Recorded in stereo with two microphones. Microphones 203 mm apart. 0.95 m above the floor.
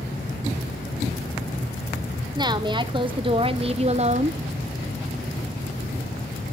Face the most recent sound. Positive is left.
turn(degrees=-35)  # may be behind; listen again after turning